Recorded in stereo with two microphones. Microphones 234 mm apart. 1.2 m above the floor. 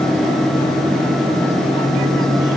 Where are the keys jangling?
I don't hear keys jangling.